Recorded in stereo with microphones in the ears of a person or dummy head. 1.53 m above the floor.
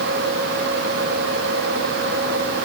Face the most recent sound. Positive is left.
No sound to turn to.